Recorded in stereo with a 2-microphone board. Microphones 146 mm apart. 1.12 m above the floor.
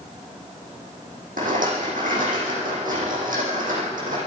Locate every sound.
1.4 s a rattle: 85° right, 9 m